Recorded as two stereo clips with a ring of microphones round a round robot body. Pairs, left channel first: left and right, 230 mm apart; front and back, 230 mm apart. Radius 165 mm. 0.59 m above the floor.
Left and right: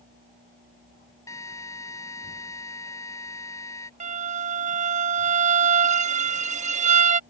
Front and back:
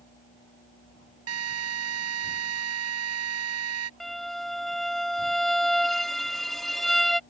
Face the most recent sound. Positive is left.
turn(degrees=-90)